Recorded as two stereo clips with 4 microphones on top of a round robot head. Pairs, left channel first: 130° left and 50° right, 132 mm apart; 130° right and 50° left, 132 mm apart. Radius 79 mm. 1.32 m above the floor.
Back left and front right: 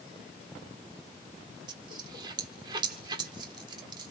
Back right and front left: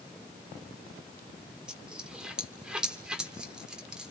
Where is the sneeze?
I don't hear a sneeze.